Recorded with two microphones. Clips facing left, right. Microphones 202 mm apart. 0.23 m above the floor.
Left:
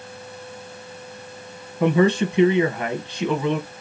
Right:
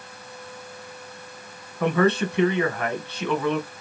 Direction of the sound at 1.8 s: 15° left (ahead or behind).